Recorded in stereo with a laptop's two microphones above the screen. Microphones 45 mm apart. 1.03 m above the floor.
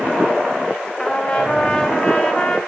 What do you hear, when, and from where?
1.0 s a trumpet: 25° left (ahead or behind), 0.8 m